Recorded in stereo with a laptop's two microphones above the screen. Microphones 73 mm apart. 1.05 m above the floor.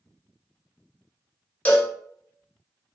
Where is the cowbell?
20° left (ahead or behind), 0.8 m.